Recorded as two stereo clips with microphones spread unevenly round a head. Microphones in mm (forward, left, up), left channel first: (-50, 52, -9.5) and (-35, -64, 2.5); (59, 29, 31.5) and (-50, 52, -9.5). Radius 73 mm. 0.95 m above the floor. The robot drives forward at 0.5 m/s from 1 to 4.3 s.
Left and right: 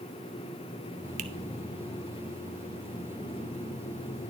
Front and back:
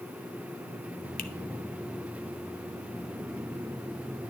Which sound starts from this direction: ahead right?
A finger snap, at 1.2 s.